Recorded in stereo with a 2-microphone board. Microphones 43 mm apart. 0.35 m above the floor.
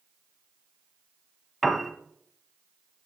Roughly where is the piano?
Centre.